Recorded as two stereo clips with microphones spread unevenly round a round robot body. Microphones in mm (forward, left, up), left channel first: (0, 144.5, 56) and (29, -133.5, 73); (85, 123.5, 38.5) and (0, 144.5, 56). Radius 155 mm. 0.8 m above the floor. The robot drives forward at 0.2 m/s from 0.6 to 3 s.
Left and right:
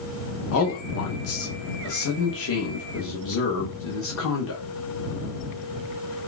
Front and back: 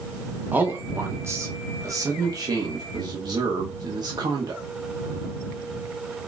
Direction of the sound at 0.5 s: 90° left.